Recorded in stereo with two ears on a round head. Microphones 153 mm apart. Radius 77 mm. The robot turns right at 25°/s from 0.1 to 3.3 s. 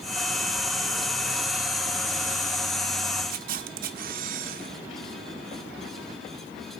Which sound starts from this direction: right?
A camera shutter, at 3.3 s.